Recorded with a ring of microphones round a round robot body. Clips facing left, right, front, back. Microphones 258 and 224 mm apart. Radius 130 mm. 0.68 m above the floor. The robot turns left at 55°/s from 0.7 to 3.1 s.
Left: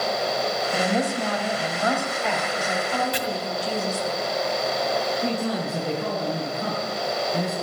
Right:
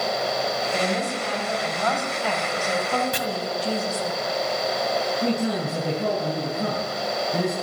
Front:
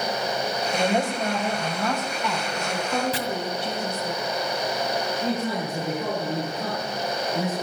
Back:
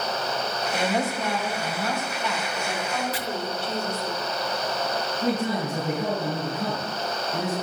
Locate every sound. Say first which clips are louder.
0.7 s a woman speaking: left 3 dB, front 2 dB; 80° left, 3.5 m; by 4.1 s 50° right, 3.5 m
3.1 s chopping: left 1 dB, front 3 dB; 40° right, 1.9 m
5.2 s a man speaking: right 2 dB, back 4 dB; 105° right, 6 m